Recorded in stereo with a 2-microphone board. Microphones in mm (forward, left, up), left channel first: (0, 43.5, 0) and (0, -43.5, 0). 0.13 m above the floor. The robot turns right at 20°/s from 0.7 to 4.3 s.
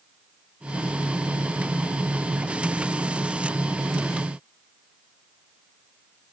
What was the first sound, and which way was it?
Only background noise.